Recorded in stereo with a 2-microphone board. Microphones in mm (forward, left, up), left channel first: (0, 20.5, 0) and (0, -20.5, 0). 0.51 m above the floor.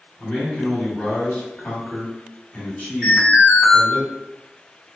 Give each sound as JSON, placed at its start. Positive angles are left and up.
{"t": 0.2, "sound": "a man speaking", "side_deg": 45, "distance_m": 1.3}
{"t": 3.0, "sound": "an alarm", "side_deg": -15, "distance_m": 1.5}